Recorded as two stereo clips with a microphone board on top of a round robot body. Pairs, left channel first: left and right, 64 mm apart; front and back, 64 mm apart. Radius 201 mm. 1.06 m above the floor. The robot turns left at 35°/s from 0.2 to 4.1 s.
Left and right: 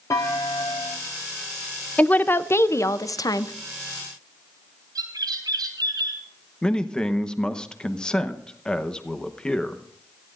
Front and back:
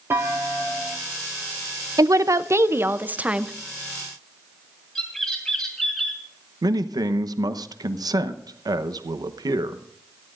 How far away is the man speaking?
About 1.1 m.